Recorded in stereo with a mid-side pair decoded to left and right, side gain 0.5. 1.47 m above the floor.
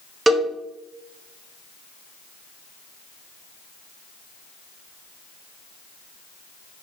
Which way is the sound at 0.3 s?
25° right.